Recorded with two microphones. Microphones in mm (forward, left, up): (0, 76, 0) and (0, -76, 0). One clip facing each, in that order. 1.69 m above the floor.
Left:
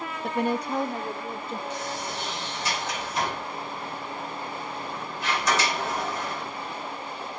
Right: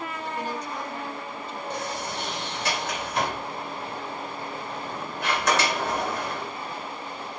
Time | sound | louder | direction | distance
0.2 | a woman speaking | left 8 dB | 60° left (ahead or behind) | 1.0 m
1.7 | a sliding door | right 1 dB | 65° right (ahead or behind) | 3 m